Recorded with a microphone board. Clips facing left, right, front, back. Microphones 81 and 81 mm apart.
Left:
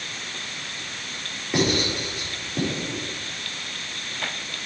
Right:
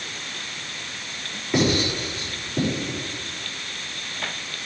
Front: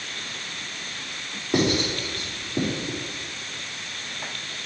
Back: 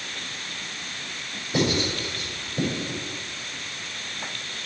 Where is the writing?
5° left, 4.5 m.